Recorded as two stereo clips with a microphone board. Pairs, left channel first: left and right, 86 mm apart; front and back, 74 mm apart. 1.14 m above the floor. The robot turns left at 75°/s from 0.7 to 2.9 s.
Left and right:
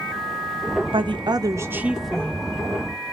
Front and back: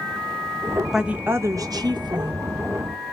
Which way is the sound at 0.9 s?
95° right.